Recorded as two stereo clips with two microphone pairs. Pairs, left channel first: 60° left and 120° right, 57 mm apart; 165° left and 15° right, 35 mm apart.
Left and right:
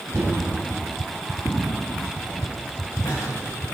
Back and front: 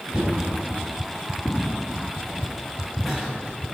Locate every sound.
0.1 s knocking: 90° right, 5 m
1.4 s footsteps: 80° left, 4.5 m; by 3.3 s 90° left, 5 m